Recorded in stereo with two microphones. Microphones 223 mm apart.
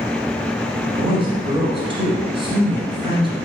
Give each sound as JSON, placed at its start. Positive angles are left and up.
{"t": 0.9, "sound": "a man speaking", "side_deg": -25, "distance_m": 1.2}